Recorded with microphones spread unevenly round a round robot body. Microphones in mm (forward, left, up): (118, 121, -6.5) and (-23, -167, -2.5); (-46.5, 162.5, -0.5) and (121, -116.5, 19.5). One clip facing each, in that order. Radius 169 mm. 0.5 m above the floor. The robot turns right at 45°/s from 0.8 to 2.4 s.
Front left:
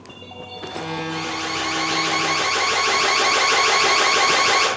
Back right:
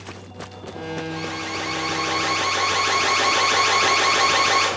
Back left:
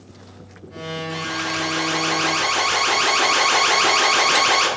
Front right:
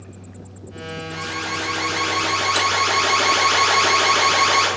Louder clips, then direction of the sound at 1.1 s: Front left 1 dB, back left 2 dB; 105° left.